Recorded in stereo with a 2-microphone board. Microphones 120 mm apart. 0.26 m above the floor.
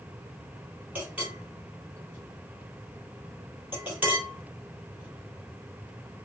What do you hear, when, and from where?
0.9 s a clink: 15° right (ahead or behind), 3.5 m